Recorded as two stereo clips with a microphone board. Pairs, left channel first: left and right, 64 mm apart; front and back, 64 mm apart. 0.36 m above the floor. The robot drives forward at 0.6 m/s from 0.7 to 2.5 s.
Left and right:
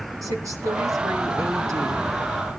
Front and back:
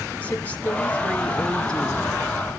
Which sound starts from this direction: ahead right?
A woman speaking, at 0.2 s.